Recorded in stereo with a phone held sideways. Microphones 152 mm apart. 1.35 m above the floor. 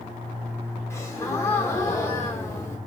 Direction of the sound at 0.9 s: 20° left (ahead or behind).